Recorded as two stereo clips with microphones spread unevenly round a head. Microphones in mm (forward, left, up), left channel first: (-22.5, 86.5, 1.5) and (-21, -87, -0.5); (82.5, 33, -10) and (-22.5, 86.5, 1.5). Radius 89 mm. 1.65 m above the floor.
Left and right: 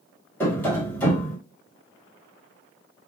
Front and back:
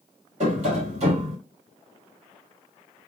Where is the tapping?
170° left, 2 m.